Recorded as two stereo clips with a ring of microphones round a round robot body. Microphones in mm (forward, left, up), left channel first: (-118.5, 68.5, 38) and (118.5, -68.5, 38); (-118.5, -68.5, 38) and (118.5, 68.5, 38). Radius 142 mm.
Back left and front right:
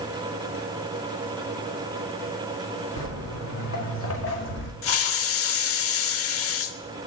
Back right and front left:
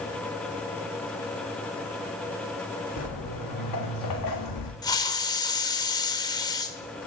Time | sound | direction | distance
3.0 | footsteps | 170° right | 4.5 m
4.8 | a hiss | 135° left | 0.7 m